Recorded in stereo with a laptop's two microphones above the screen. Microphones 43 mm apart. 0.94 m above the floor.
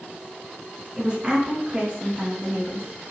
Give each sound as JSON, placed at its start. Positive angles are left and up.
{"t": 1.0, "sound": "a woman speaking", "side_deg": -20, "distance_m": 0.9}